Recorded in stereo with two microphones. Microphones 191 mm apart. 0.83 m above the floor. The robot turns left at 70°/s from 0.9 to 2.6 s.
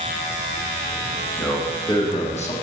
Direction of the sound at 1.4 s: 175° left.